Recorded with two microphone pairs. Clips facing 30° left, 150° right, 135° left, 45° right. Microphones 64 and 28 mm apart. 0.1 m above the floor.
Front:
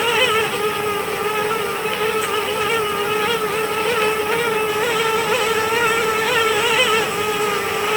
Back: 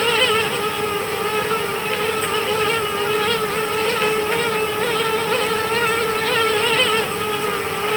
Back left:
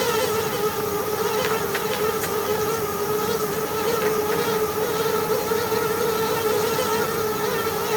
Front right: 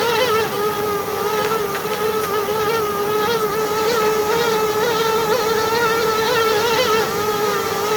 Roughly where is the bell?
No bell in this recording.